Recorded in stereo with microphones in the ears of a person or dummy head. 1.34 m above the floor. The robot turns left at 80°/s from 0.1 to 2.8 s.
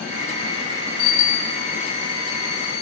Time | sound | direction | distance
1.0 | a bicycle bell | 85° left | 9 m